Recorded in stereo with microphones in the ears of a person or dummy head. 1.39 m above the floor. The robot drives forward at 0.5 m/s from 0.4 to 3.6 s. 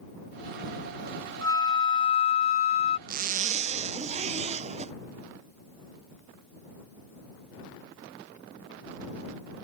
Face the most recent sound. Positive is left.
turn(degrees=-35)  # may be behind; listen again after turning